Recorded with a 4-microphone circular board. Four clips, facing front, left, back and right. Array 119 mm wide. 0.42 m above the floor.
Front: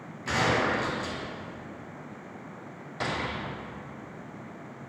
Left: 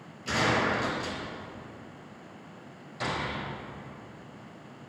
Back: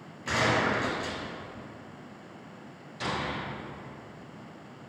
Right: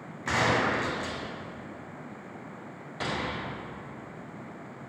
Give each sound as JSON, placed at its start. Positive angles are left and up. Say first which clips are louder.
{"t": 0.3, "sound": "a gunshot", "louder": "right 1 dB, front 1 dB", "azimuth_deg": -90, "distance_m": 1.5}
{"t": 3.0, "sound": "a gunshot", "louder": "even, front 1 dB", "azimuth_deg": -30, "distance_m": 1.9}